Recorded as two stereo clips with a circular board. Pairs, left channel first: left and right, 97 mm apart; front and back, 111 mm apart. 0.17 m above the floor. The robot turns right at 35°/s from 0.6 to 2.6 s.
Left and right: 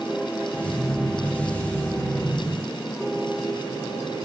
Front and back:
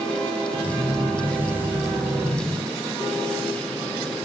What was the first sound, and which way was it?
Only background noise.